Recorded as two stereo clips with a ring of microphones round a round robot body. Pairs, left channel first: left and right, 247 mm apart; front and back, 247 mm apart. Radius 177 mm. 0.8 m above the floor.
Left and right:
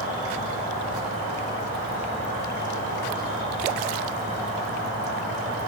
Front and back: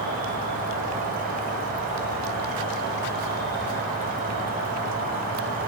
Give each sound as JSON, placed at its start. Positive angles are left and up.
{"t": 0.0, "sound": "an insect", "azimuth_deg": -160, "distance_m": 2.0}